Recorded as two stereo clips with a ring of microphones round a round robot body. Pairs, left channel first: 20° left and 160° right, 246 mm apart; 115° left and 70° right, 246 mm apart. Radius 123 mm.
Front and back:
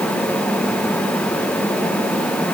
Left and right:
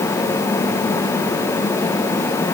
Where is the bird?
No bird in this recording.